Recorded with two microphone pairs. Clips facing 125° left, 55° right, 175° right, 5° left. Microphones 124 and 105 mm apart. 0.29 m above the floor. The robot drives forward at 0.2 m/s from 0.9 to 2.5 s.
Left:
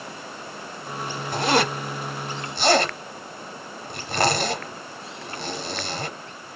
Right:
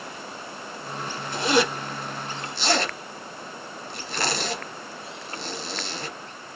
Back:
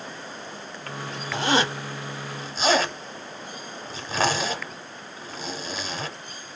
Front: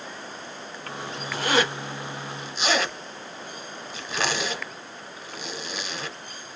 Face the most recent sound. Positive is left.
turn(degrees=140)